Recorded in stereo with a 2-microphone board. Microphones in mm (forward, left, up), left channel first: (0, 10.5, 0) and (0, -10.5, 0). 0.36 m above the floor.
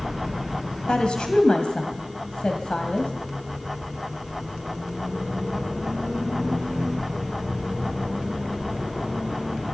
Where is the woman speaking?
55° left (ahead or behind), 1.9 m.